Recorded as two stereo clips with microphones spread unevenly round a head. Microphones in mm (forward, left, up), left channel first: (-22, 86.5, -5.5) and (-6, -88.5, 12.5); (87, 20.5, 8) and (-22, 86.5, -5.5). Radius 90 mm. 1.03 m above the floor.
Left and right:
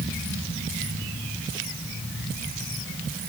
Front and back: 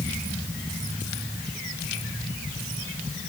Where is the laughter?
I don't hear laughter.